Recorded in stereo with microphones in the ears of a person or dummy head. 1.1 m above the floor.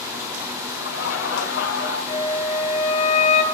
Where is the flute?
40° left (ahead or behind), 6 m.